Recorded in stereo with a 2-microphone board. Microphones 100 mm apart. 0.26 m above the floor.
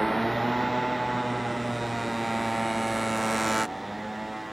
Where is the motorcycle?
Centre (ahead or behind).